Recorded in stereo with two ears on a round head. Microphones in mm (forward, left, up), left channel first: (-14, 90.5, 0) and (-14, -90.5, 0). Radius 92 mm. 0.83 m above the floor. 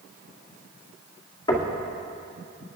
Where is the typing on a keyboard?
No typing on a keyboard in this recording.